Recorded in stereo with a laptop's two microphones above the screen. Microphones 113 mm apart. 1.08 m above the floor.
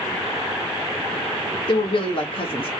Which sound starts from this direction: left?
A woman speaking, at 1.7 s.